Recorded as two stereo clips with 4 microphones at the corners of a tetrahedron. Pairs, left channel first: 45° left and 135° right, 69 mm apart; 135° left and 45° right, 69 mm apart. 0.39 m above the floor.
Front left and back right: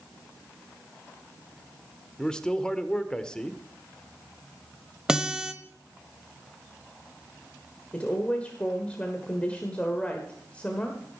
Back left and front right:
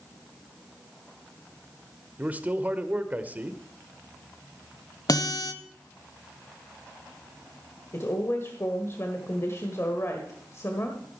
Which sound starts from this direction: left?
A woman speaking, at 7.9 s.